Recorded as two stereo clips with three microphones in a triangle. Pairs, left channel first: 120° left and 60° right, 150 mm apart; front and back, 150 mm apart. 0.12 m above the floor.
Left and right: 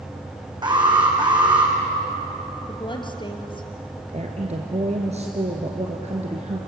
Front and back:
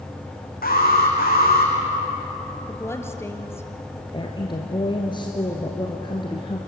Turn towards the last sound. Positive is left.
turn(degrees=-45)